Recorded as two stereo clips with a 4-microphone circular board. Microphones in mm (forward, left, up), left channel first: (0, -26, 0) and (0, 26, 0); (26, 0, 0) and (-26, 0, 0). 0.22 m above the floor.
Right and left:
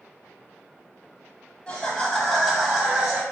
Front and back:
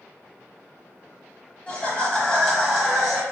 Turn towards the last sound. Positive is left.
turn(degrees=105)